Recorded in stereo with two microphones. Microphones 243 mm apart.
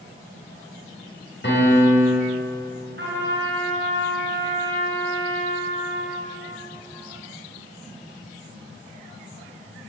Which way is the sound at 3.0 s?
45° right (ahead or behind).